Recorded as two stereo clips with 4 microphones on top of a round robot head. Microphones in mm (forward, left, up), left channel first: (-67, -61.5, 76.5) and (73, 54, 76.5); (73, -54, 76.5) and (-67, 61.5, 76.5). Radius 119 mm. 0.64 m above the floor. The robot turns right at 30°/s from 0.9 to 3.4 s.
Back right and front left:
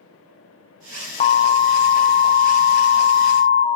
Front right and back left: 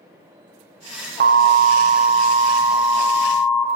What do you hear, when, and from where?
1.2 s an alarm: 170° left, 0.6 m; by 3.7 s 125° right, 0.6 m